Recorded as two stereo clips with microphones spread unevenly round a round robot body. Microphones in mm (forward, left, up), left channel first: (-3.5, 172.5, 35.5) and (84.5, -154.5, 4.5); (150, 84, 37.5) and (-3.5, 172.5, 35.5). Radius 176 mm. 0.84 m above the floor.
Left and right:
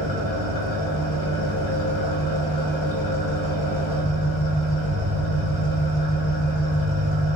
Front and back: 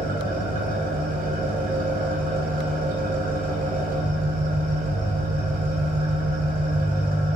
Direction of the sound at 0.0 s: 115° left.